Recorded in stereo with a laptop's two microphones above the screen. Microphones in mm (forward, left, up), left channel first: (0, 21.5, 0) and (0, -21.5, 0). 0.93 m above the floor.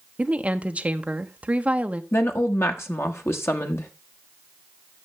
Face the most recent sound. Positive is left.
turn(degrees=75)  # may be behind; listen again after turning